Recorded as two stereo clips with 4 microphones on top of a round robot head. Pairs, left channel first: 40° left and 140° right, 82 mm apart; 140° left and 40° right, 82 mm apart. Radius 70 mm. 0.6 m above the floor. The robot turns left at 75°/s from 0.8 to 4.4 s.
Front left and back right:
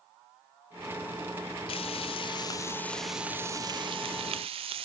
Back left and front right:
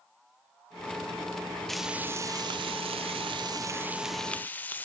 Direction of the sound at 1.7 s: 55° left.